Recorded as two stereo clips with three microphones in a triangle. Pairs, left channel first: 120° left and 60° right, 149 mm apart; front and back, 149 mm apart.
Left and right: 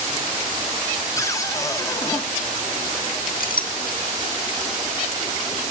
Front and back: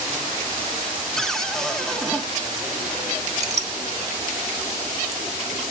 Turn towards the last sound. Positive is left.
turn(degrees=135)